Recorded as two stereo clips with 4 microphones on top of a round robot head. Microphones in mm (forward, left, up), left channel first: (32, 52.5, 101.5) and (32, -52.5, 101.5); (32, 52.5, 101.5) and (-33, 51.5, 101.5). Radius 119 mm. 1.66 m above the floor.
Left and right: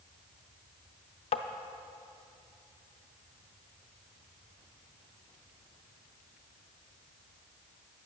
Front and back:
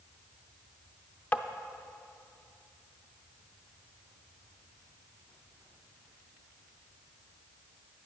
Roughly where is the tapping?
Ahead left.